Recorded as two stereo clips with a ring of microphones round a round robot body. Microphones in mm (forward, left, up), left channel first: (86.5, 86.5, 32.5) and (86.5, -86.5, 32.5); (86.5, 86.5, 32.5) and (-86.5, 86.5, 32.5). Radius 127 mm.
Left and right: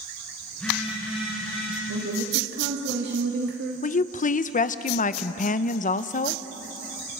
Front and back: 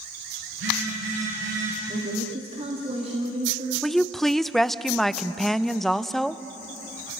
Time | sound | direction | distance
0.5 | a phone buzzing | 175° left | 8.5 m
1.9 | a woman speaking | 115° right | 2.5 m
3.8 | a woman speaking | 85° left | 0.7 m